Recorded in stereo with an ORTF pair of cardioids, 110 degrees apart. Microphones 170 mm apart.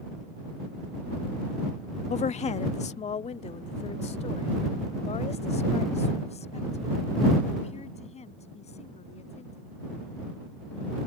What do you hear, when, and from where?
2.1 s a woman speaking: 40° left